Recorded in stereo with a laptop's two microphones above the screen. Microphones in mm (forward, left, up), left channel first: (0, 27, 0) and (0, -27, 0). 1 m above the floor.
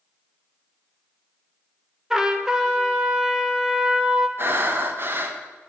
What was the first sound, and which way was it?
A trumpet, 10° right (ahead or behind).